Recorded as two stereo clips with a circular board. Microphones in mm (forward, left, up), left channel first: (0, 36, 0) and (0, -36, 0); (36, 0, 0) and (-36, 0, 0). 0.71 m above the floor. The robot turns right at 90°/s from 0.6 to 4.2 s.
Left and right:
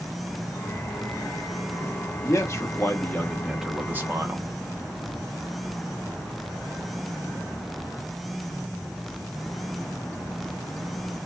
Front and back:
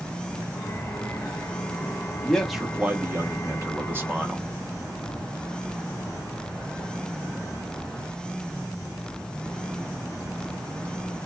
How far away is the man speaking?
About 0.7 m.